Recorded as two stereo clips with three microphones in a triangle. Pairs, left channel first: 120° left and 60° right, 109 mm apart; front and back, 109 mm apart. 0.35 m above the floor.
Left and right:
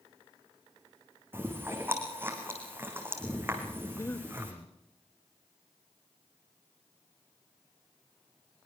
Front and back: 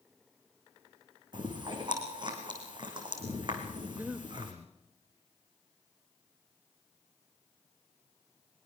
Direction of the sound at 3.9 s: 130° left.